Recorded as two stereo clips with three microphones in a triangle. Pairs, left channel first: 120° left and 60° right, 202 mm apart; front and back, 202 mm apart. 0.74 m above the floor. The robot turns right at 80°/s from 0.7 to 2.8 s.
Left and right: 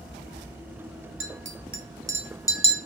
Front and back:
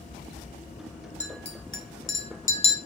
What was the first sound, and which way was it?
A clink, 60° right.